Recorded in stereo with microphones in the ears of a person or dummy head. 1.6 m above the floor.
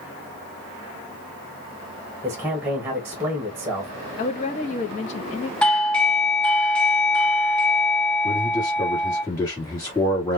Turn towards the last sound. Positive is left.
turn(degrees=15)  # may be behind; listen again after turning